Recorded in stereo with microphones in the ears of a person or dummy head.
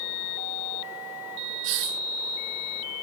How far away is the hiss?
About 0.8 m.